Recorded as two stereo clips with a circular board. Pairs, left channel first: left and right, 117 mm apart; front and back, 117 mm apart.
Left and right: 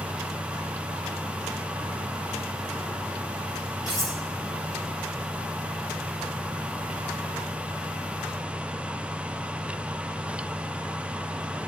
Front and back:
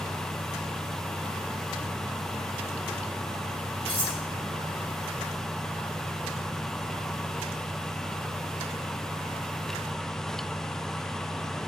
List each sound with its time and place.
3.9 s cutlery clinking: 35° left, 4 m